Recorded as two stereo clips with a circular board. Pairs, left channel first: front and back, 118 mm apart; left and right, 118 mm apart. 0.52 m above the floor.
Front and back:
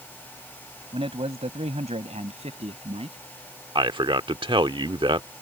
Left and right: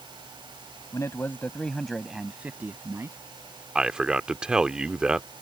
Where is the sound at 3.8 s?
170° right.